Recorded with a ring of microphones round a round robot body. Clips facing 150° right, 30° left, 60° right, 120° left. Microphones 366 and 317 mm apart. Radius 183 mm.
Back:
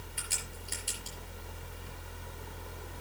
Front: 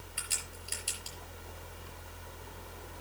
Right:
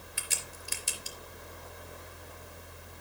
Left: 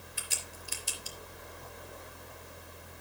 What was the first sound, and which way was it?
A crack, 45° right.